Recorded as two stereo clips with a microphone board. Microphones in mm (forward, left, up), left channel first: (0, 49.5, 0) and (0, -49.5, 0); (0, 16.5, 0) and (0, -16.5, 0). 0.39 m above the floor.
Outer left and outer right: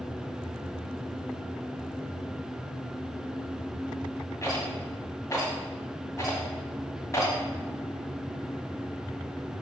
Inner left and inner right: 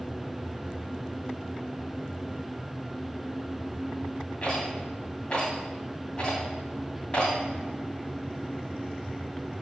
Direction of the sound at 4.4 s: 35° left (ahead or behind).